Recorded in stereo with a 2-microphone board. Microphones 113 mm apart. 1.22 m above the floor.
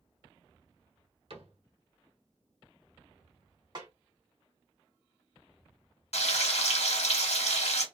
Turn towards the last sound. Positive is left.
turn(degrees=70)  # may be behind; listen again after turning